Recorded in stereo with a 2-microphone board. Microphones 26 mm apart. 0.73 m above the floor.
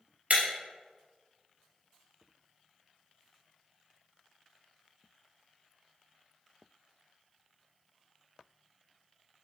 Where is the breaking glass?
60° right (ahead or behind), 1.2 m.